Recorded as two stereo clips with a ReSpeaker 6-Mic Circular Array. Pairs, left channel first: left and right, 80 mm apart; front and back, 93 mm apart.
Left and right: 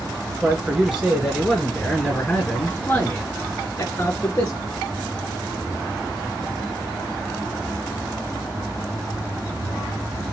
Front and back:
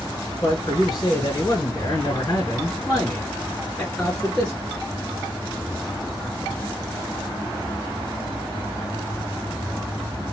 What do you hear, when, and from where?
0.4 s a man speaking: 25° right, 1.9 m; by 4.6 s 65° left, 2 m